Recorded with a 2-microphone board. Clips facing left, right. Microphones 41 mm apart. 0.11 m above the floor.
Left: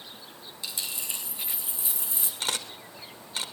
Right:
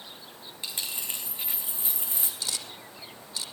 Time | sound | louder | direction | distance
0.6 | a dropped coin | even | 35° right (ahead or behind) | 3.5 m
2.4 | a camera shutter | left 7 dB | 50° left (ahead or behind) | 1.4 m